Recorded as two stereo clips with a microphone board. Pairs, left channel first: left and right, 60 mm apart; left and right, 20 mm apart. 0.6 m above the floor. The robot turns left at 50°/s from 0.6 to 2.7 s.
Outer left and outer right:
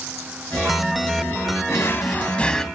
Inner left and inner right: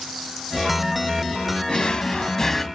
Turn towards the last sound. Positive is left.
turn(degrees=5)